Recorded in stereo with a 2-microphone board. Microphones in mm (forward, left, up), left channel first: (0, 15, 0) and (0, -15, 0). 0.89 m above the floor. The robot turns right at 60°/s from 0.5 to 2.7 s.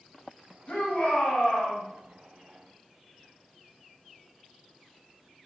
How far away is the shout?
About 1.3 m.